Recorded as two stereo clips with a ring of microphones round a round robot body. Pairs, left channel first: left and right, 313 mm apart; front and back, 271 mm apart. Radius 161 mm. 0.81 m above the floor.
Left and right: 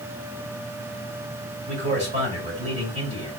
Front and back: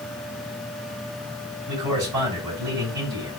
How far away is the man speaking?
About 3 m.